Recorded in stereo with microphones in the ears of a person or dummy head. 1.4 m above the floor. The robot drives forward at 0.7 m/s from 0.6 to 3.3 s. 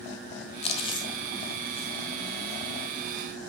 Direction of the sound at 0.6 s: 35° left (ahead or behind).